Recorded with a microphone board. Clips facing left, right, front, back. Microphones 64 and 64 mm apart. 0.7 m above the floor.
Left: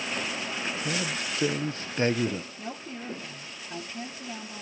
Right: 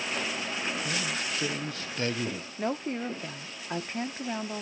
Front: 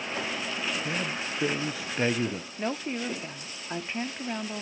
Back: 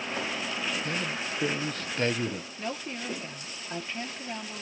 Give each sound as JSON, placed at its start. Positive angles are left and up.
{"t": 0.8, "sound": "a man speaking", "azimuth_deg": 70, "distance_m": 0.6}
{"t": 2.6, "sound": "a woman speaking", "azimuth_deg": -65, "distance_m": 1.2}